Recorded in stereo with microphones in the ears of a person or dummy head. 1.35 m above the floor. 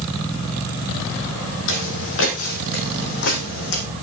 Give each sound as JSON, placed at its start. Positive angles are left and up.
{"t": 1.7, "sound": "footsteps", "side_deg": 70, "distance_m": 3.5}